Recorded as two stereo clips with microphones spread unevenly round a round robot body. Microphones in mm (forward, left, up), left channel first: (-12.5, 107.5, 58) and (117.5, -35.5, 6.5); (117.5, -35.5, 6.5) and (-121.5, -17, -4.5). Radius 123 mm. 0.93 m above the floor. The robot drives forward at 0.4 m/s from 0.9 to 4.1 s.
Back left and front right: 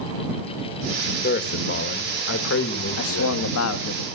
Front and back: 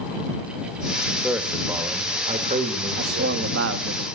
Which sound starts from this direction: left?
A man speaking, at 1.2 s.